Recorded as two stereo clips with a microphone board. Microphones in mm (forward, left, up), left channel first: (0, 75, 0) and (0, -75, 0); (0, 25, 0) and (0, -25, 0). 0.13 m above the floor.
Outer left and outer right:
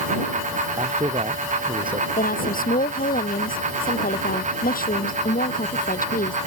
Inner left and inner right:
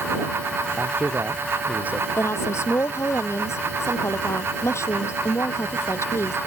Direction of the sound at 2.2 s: 70° left (ahead or behind).